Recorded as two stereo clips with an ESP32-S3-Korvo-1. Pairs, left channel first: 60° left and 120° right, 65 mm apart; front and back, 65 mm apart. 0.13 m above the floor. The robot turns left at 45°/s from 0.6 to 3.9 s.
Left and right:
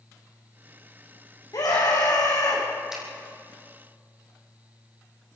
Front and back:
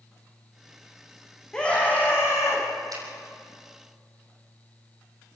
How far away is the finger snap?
About 5 m.